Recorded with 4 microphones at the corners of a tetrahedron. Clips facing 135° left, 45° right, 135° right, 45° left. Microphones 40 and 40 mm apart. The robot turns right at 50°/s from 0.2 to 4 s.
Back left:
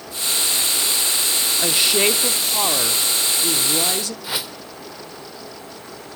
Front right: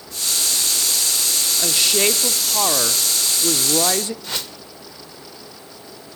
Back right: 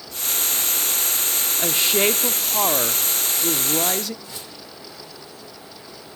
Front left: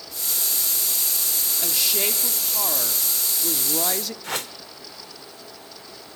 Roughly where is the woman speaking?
Behind.